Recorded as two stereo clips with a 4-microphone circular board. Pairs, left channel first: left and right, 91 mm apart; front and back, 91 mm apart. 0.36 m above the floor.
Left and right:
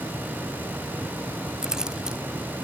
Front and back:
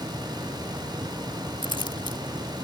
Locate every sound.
1.6 s keys jangling: 10° right